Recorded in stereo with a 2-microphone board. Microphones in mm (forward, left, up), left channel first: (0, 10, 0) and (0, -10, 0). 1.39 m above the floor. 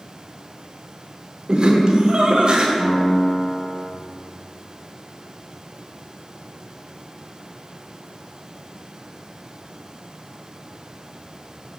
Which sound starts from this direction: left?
A piano, at 2.8 s.